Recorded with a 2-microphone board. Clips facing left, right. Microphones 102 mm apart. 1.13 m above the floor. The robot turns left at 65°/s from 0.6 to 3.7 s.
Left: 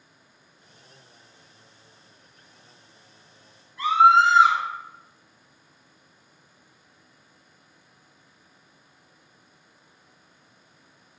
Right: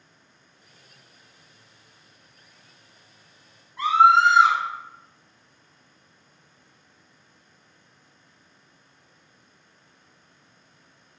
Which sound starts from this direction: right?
A scream, at 3.8 s.